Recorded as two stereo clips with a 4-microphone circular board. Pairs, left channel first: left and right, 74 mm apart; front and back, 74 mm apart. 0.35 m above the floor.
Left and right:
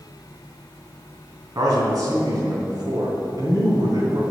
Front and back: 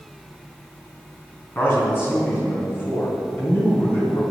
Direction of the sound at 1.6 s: 60° right.